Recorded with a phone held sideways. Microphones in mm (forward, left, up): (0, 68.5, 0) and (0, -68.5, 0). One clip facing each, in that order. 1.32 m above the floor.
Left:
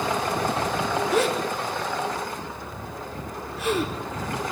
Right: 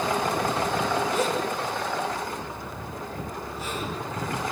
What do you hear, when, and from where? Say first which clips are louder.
1.1 s a gasp: left 3 dB; 85° left, 4 m